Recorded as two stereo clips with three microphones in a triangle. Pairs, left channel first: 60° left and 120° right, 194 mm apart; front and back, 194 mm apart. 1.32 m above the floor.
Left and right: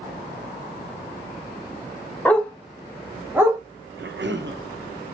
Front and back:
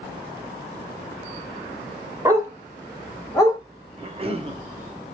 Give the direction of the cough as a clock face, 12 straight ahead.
4 o'clock.